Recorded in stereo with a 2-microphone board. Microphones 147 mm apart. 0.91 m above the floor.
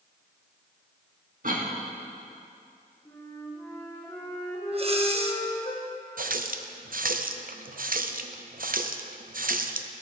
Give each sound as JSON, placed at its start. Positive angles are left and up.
{"t": 1.4, "sound": "a cough", "side_deg": -70, "distance_m": 1.6}
{"t": 3.0, "sound": "a flute", "side_deg": 20, "distance_m": 2.5}
{"t": 4.7, "sound": "breathing", "side_deg": -45, "distance_m": 0.7}
{"t": 6.2, "sound": "a running tap", "side_deg": -70, "distance_m": 0.5}